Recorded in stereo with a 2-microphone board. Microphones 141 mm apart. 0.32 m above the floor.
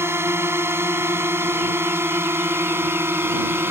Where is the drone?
15° right (ahead or behind).